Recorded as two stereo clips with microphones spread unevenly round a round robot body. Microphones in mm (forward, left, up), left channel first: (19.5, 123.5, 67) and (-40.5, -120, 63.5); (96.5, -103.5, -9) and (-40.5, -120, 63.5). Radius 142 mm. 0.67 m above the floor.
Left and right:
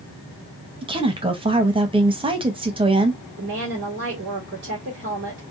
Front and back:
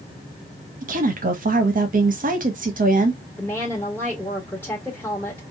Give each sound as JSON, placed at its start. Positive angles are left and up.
{"t": 0.8, "sound": "a woman speaking", "azimuth_deg": -150, "distance_m": 1.1}
{"t": 3.4, "sound": "a woman speaking", "azimuth_deg": -60, "distance_m": 1.8}